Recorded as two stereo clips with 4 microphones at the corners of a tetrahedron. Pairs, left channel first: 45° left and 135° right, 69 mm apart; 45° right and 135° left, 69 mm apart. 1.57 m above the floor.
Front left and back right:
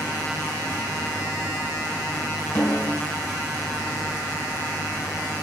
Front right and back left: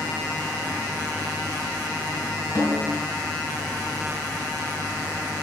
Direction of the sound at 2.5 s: 10° right.